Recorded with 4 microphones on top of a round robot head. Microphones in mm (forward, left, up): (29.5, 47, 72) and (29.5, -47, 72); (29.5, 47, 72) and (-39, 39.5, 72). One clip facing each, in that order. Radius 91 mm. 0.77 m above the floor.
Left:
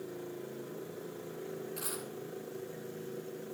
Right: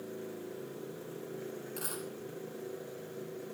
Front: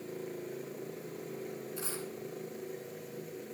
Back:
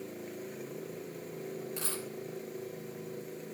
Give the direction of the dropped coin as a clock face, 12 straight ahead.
5 o'clock.